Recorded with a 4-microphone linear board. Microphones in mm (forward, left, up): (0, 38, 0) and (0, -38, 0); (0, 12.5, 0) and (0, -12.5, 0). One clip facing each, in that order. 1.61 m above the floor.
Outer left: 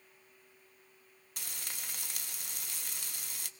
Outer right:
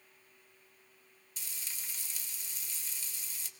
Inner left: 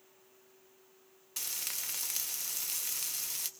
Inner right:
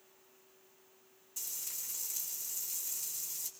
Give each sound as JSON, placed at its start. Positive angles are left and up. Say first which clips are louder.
{"t": 1.4, "sound": "frying", "louder": "outer left 3 dB, inner left 5 dB", "side_deg": 60, "distance_m": 0.9}